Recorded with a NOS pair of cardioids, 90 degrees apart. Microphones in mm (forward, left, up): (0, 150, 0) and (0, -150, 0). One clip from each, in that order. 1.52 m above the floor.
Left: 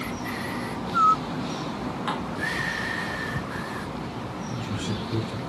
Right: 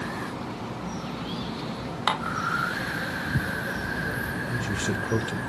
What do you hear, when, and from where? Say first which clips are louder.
2.1 s dishes clattering: right 6 dB; 60° right, 1.8 m
4.5 s a man speaking: right 3 dB; 55° right, 1.6 m